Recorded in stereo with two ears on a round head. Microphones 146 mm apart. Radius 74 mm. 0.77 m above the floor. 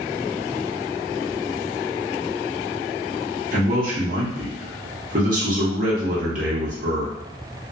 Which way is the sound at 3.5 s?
55° right (ahead or behind).